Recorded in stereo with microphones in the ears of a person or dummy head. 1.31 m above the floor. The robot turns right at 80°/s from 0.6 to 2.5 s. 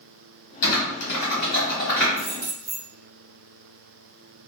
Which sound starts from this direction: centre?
Keys jangling, at 2.2 s.